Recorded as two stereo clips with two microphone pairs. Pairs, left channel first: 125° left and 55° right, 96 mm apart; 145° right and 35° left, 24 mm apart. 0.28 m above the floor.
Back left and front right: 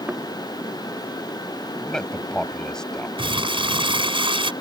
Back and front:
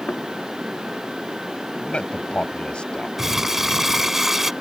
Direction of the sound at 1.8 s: 155° right.